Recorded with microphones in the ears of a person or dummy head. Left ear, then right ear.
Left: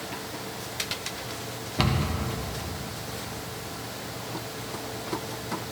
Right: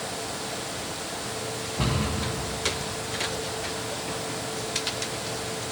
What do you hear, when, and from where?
1.8 s a cupboard door: 75° left (ahead or behind), 1.2 m